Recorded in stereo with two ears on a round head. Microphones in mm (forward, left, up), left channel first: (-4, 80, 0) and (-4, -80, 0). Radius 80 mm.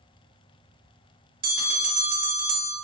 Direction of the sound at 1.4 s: 50° right (ahead or behind).